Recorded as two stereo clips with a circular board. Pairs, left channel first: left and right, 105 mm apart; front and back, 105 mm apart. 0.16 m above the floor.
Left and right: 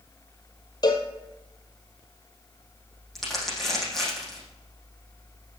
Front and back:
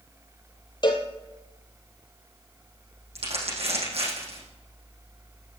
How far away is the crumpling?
About 7 m.